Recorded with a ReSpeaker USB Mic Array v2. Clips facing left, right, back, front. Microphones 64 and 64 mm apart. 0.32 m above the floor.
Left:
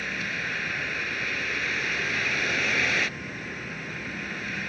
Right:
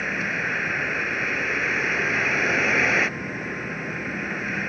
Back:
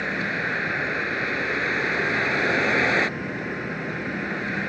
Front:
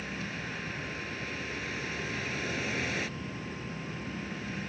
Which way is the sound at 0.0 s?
155° right.